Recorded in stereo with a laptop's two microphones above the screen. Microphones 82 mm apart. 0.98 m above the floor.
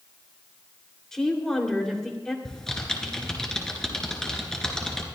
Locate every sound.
1.1 s a woman speaking: 5° left (ahead or behind), 2.5 m
2.5 s typing on a keyboard: 5° left (ahead or behind), 2.5 m